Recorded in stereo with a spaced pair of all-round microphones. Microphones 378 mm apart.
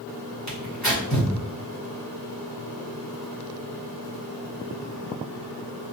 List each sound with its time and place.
0.5 s tearing paper: 45° left (ahead or behind), 1.3 m